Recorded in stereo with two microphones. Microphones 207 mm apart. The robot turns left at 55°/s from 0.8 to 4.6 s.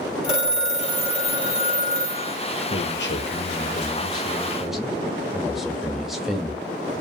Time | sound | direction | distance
0.2 | a phone ringing | 25° left | 1.5 m
2.7 | a man speaking | 105° left | 0.8 m